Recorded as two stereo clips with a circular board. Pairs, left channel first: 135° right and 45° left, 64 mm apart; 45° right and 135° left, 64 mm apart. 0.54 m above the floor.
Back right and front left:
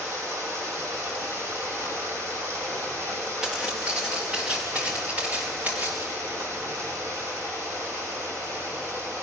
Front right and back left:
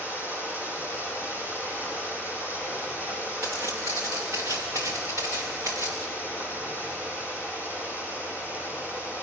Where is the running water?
80° left, 7.5 m.